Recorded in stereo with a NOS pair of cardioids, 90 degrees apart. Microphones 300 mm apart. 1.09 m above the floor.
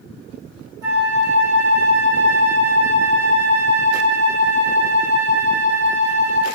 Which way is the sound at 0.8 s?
50° right.